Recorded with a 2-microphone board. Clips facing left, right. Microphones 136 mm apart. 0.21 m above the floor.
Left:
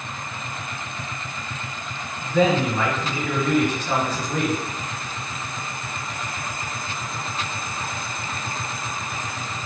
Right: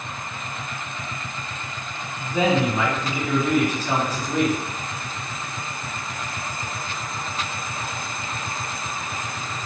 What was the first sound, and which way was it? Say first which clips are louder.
A man speaking: left 1 dB; 10° right (ahead or behind).